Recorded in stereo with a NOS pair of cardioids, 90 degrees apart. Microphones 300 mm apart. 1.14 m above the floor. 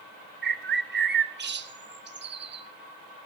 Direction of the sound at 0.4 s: 35° right.